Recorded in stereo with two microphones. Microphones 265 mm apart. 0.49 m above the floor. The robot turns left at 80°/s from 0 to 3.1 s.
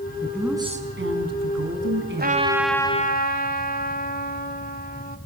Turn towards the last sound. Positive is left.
turn(degrees=145)